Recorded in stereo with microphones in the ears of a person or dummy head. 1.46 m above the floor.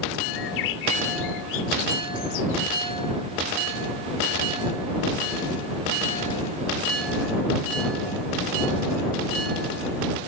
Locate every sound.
0.3 s a bird: 70° left (ahead or behind)